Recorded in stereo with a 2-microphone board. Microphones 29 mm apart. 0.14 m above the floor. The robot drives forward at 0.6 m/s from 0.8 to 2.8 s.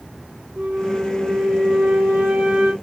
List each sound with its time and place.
0.6 s a flute: 65° right (ahead or behind), 1.2 m; by 2.7 s 50° right (ahead or behind), 1.3 m